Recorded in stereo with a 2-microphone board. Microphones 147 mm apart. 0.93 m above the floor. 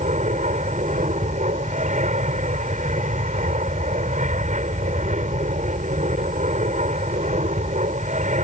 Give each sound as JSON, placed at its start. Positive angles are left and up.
{"t": 0.0, "sound": "an aircraft", "side_deg": -55}